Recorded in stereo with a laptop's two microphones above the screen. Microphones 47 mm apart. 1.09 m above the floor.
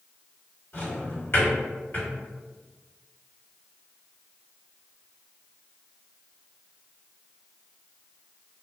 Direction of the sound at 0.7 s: 45° left (ahead or behind).